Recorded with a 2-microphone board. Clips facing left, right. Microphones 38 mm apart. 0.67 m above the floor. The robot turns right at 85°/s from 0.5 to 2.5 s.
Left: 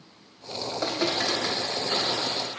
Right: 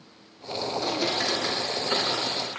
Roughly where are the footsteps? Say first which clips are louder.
Left 1 dB; left.